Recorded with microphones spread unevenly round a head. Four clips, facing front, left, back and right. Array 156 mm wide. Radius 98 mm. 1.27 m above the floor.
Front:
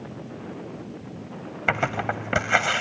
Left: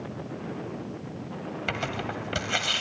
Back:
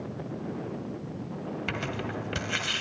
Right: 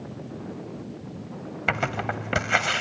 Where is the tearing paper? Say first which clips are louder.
Right 6 dB, front 12 dB; 35° right, 1.7 m.